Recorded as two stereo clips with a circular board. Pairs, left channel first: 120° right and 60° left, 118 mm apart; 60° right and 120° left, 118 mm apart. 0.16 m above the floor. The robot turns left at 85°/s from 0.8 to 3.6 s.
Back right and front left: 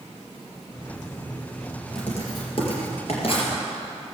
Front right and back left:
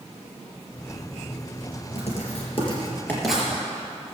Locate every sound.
1.9 s writing: 35° right, 3.5 m; by 3.5 s 165° right, 3.5 m